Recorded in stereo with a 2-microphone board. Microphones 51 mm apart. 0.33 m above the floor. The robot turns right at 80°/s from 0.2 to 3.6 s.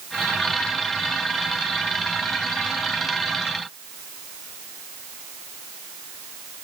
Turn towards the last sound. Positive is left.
No sound to turn to.